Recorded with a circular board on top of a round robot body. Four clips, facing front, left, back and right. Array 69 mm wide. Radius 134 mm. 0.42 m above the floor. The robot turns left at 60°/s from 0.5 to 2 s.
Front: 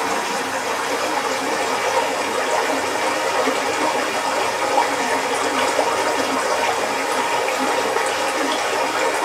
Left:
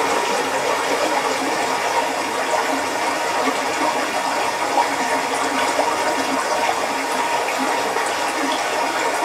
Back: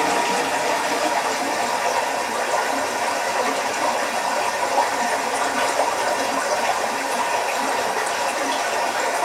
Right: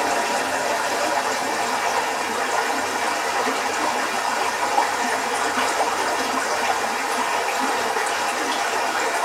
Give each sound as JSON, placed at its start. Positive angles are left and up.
{"t": 0.0, "sound": "running water", "azimuth_deg": 120, "distance_m": 1.6}